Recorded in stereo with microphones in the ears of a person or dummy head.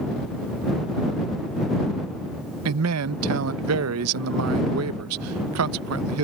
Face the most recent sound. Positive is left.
turn(degrees=-85)